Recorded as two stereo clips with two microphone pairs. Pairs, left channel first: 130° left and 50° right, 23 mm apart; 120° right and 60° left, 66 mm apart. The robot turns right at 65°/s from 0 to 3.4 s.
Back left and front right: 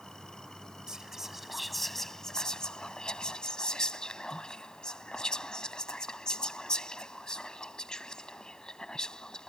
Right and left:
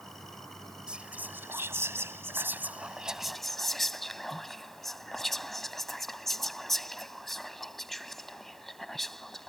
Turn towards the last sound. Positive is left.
turn(degrees=155)